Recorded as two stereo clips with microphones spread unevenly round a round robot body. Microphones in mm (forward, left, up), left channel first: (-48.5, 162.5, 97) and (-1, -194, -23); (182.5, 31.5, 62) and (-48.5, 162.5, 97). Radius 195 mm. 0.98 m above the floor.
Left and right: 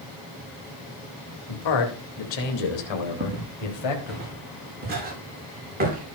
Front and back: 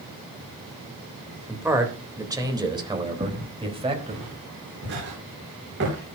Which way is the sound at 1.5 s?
70° left.